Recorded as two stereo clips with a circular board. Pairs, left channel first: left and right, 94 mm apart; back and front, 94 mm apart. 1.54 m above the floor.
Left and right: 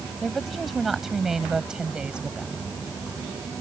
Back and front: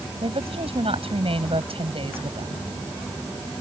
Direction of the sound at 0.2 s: Straight ahead.